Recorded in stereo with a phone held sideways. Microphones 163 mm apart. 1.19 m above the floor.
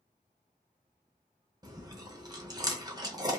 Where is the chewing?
25° right (ahead or behind), 0.6 m.